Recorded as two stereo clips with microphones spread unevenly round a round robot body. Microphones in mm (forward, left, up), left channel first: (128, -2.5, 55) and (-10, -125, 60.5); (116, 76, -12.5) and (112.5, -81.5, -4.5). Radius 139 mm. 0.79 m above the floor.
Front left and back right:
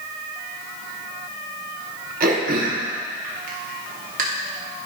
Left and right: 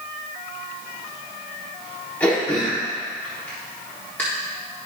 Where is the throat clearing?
170° left, 1.2 m.